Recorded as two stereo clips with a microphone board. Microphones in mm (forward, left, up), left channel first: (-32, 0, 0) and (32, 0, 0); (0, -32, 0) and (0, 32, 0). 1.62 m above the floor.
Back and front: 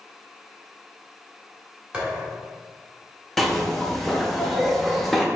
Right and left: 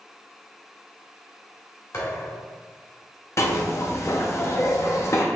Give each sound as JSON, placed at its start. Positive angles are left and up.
{"t": 1.9, "sound": "a thud", "azimuth_deg": -75, "distance_m": 2.0}
{"t": 3.4, "sound": "a zipper", "azimuth_deg": -95, "distance_m": 0.7}